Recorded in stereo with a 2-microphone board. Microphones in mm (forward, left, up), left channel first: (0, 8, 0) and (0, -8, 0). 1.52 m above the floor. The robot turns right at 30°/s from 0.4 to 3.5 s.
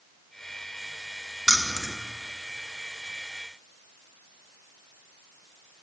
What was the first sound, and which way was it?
Keys jangling, 30° right (ahead or behind).